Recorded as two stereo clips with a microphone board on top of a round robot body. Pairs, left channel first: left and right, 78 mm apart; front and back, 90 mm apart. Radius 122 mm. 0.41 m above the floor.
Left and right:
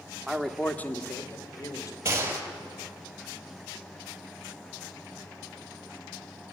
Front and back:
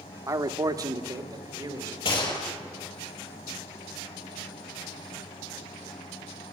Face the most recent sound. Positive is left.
turn(degrees=-30)